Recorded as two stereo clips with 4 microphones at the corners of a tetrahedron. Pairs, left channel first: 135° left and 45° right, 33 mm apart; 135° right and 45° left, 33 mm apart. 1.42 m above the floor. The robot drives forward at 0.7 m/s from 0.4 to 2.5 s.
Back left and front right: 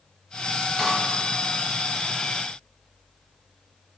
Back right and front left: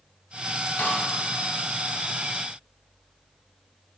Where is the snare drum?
150° right, 2 m.